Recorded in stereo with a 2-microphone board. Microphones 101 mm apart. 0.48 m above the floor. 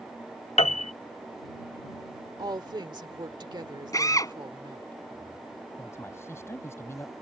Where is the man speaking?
25° left (ahead or behind).